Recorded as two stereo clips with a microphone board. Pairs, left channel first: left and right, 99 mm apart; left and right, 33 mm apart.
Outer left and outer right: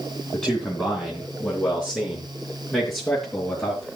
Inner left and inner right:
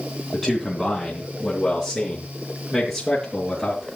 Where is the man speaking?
10° left (ahead or behind), 3.5 m.